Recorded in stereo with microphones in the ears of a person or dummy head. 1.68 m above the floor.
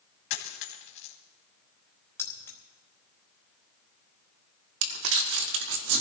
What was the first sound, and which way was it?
A dropped coin, 50° left (ahead or behind).